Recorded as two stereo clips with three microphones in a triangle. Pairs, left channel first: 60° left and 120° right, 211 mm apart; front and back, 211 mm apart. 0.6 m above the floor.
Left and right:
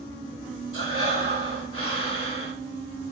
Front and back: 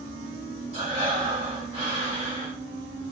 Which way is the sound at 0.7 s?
130° right.